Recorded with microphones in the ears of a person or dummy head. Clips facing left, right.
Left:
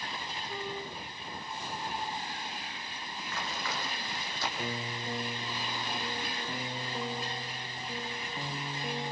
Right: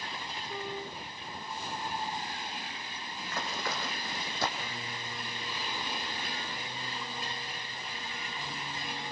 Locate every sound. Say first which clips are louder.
3.2 s running footsteps: right 2 dB; 40° right (ahead or behind), 5 m; by 4.5 s 45° right (ahead or behind), 4 m
4.6 s a piano: left 5 dB; 30° left (ahead or behind), 1.4 m